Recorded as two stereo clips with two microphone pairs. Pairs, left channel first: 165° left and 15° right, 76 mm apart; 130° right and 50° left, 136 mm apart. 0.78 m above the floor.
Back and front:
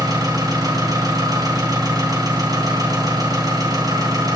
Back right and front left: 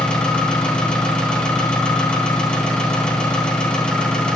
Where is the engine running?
50° right, 3.5 m.